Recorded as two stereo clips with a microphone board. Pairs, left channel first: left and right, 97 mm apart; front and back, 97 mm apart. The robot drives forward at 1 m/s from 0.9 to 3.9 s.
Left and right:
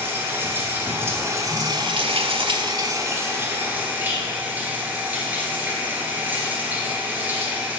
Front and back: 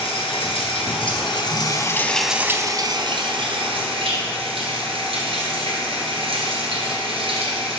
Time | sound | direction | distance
0.0 | running water | 25° right | 1.5 m